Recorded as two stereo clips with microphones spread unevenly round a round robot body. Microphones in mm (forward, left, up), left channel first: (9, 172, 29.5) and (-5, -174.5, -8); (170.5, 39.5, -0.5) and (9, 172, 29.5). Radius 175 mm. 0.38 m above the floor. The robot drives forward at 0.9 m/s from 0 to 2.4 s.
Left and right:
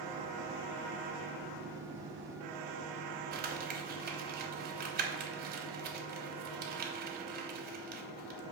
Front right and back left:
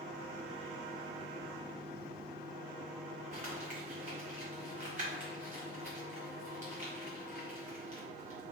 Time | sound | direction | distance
3.3 | crumpling | 150° right | 0.9 m